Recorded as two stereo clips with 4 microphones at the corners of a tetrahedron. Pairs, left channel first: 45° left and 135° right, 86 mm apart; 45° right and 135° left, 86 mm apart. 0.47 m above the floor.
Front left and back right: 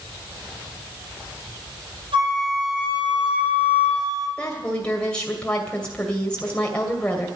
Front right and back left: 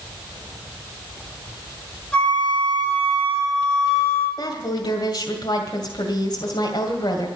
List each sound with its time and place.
2.1 s a flute: 120° right, 8.5 m
4.4 s a woman speaking: 30° right, 2.5 m